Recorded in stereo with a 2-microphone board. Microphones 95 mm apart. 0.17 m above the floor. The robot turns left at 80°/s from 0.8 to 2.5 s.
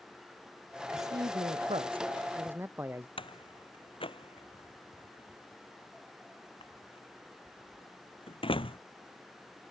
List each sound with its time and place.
0.9 s a man speaking: 30° right; by 3.1 s 155° right
3.2 s a door slam: 70° left (ahead or behind)